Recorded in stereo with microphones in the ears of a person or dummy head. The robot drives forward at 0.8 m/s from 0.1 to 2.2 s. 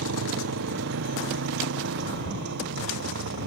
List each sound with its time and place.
0.0 s a motorcycle: 85° right; by 3.5 s 70° right (ahead or behind)